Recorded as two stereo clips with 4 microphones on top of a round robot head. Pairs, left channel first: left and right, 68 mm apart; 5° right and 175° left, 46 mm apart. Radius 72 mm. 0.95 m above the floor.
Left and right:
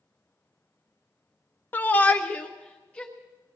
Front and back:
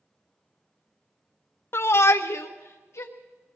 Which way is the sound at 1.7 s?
30° left.